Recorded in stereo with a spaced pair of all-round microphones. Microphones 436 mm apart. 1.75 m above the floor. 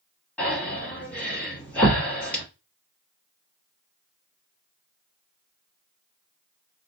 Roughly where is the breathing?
Centre.